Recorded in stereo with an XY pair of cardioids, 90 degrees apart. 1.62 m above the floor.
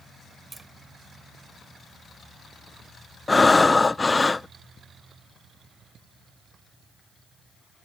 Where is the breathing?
25° left.